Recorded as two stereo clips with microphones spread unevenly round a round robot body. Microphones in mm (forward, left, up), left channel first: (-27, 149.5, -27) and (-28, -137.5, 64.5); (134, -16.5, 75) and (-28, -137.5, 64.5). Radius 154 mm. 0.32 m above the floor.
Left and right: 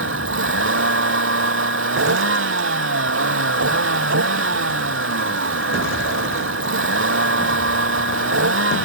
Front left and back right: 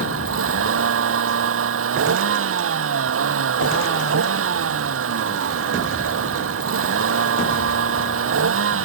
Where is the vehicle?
140° right.